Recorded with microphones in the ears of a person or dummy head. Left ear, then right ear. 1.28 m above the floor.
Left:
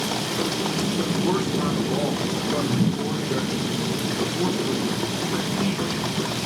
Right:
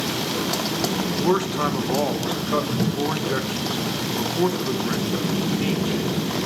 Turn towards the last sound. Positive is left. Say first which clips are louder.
# right 5 dB
turn(degrees=-30)  # may be behind; listen again after turning